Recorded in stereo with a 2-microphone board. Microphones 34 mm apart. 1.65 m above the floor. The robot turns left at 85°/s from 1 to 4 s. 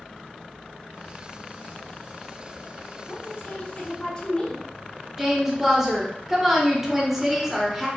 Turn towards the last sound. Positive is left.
turn(degrees=-5)  # may be behind; listen again after turning